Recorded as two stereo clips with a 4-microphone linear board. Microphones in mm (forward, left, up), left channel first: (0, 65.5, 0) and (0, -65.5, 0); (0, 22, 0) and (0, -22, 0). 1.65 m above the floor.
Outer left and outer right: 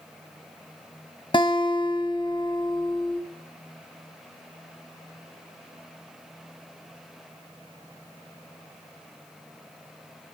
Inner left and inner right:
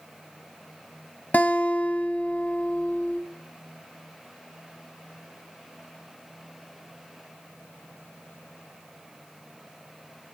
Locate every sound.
1.3 s a guitar: 40° left (ahead or behind), 1.1 m